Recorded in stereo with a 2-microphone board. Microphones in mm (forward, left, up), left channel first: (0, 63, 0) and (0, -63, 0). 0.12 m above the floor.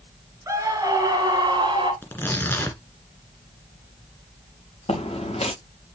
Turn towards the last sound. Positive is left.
turn(degrees=50)  # may be behind; listen again after turning